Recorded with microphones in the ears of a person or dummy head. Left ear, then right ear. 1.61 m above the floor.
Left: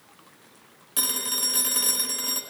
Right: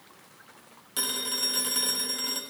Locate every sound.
1.0 s a phone ringing: centre (ahead or behind), 1.5 m